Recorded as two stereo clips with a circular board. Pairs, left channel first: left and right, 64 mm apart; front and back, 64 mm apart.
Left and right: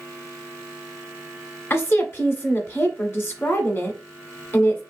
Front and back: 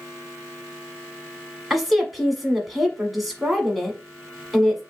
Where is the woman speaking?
95° left, 1.3 m.